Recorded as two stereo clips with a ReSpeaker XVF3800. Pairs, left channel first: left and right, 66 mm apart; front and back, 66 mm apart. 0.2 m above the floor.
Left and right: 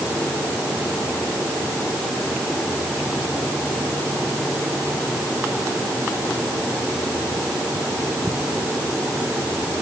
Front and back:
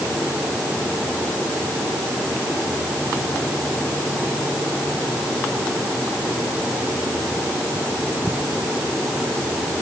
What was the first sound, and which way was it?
Only background noise.